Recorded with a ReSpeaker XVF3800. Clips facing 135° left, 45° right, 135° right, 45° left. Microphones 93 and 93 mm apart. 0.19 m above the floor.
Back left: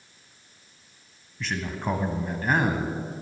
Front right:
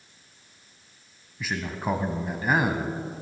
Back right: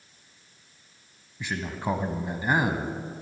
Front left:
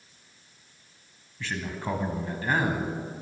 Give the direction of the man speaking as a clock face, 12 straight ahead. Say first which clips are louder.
Even, back right 2 dB; 4 o'clock.